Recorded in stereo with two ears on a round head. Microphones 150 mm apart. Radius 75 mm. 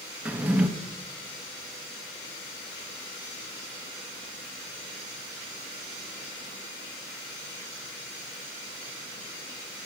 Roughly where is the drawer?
Centre.